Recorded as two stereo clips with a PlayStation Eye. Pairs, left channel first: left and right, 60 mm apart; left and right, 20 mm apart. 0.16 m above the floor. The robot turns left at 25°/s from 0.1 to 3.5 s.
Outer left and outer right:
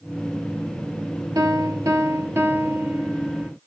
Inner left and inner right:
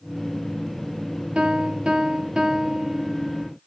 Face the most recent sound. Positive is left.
turn(degrees=-160)